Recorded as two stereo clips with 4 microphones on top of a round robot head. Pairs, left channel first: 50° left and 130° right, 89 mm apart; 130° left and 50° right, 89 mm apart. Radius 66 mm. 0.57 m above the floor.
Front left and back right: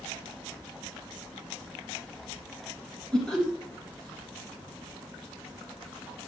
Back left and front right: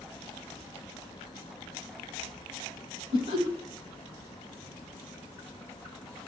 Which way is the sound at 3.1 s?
30° right.